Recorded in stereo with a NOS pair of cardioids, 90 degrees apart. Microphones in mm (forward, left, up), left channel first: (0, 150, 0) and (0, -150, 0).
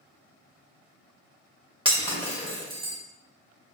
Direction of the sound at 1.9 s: 15° right.